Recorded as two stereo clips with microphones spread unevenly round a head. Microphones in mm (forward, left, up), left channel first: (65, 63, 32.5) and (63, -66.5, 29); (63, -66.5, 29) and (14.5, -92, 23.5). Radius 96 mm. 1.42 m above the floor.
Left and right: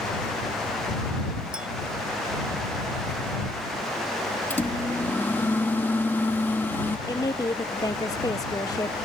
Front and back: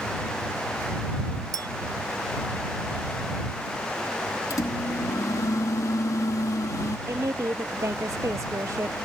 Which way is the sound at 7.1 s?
160° left.